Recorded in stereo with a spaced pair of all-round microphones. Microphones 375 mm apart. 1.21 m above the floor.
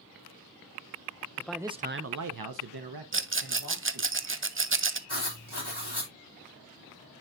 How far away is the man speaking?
About 0.7 m.